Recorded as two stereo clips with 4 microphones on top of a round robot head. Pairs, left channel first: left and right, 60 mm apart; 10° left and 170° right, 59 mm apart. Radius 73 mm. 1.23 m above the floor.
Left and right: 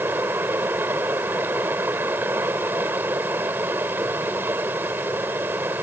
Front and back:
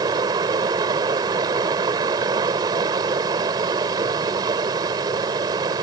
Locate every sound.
0.0 s running water: 155° right